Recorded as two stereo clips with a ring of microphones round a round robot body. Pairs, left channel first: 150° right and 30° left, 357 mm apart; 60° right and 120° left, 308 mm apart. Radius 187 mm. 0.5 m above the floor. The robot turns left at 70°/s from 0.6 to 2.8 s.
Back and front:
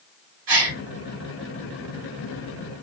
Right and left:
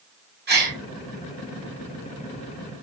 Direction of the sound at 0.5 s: 60° left.